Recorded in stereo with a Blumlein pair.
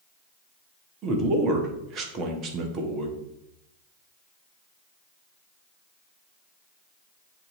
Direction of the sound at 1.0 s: 30° right.